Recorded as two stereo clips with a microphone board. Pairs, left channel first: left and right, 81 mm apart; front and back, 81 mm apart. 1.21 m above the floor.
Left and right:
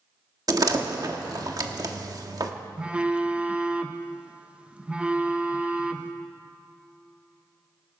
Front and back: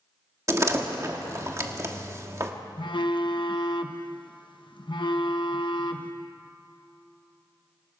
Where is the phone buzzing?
15° right, 0.9 m.